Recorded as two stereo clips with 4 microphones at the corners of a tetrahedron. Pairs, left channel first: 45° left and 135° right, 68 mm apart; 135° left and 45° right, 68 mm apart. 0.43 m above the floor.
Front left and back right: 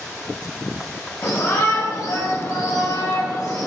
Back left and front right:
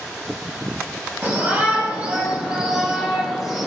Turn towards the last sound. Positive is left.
turn(degrees=40)